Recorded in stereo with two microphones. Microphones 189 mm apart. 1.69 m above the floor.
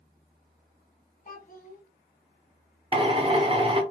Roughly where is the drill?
Right.